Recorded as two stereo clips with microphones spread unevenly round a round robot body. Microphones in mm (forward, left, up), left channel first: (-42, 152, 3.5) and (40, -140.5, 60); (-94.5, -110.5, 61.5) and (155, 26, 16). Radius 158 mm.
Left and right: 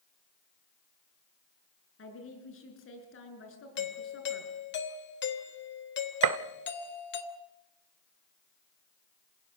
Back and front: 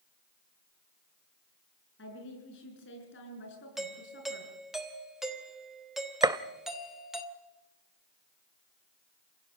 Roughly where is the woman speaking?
Behind left.